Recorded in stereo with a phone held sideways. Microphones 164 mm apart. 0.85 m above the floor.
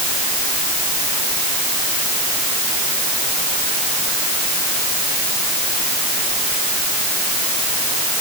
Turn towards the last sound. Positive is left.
No sound to turn to.